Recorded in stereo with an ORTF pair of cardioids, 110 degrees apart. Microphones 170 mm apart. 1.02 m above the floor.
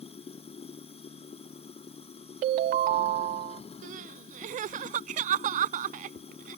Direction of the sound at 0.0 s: 35° left.